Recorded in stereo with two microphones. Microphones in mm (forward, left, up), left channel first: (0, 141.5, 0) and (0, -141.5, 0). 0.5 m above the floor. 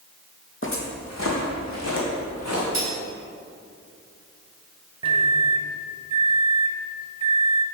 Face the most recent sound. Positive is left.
turn(degrees=-20)  # may be behind; listen again after turning